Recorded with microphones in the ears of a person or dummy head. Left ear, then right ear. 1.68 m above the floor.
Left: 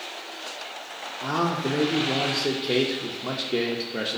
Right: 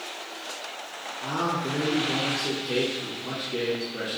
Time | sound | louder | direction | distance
1.2 | a man speaking | left 2 dB | 65° left (ahead or behind) | 0.5 m